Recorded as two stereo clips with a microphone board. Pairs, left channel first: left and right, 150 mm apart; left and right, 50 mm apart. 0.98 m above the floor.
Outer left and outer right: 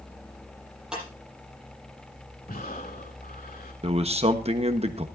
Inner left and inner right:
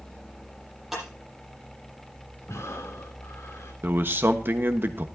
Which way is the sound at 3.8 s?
40° right (ahead or behind).